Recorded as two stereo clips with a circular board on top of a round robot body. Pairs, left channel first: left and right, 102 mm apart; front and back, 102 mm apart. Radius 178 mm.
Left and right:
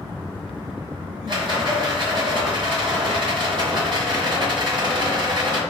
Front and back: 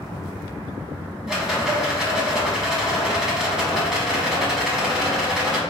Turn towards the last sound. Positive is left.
turn(degrees=-100)